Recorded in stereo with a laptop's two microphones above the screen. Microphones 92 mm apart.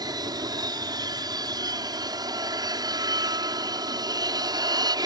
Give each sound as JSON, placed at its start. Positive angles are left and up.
{"t": 0.0, "sound": "an aircraft", "side_deg": -45}